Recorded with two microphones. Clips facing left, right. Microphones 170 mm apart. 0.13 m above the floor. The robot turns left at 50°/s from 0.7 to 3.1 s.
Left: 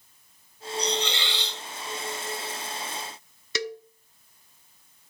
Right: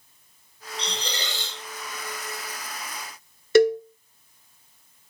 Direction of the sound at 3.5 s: 55° right (ahead or behind).